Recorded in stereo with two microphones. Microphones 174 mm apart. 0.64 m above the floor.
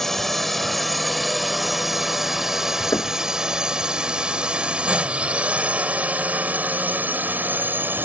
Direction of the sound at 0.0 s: Centre (ahead or behind).